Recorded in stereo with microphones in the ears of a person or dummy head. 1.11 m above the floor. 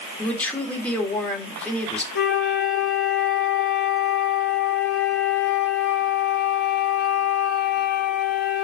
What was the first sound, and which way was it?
A man speaking, 10° left (ahead or behind).